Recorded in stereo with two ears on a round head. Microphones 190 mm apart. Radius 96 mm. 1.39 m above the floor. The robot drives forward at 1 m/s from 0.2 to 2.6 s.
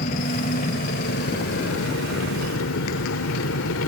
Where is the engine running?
40° left (ahead or behind); by 3.9 s 70° left (ahead or behind).